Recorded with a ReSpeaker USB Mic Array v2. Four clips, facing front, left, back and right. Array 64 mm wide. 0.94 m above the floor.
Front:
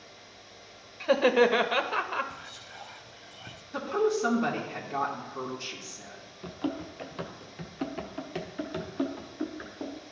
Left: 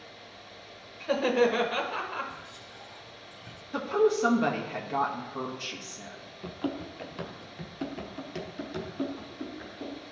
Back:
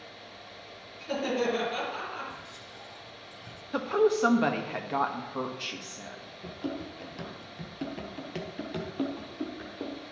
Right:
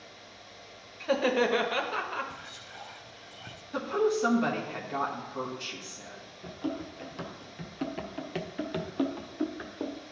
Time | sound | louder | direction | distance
1.0 | laughter | left 1 dB, front 7 dB | 10° right | 0.7 m
2.3 | whispering | even, even | 45° right | 0.5 m
3.7 | a woman speaking | left 3 dB, back 2 dB | 170° left | 1.1 m
6.4 | running footsteps | left 1 dB, front 2 dB | 55° left | 1.2 m